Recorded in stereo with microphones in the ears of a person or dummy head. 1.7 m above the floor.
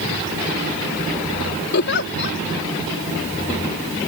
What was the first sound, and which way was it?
A giggle, 60° left (ahead or behind).